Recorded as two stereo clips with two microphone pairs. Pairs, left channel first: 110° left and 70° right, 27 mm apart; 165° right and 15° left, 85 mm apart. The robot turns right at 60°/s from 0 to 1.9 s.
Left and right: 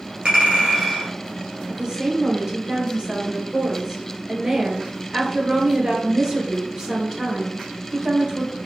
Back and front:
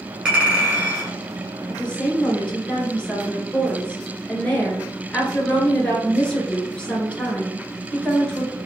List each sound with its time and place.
0.2 s a clink: 60° right, 1.3 m; by 1.1 s 5° right, 1.3 m
1.7 s a woman speaking: 115° right, 1.3 m; by 8.5 s 100° right, 1.3 m